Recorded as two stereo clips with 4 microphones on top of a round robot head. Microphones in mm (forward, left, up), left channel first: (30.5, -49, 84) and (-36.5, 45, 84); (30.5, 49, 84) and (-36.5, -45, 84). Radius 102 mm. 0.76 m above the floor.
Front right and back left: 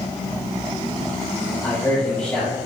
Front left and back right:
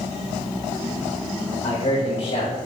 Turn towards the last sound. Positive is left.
turn(degrees=20)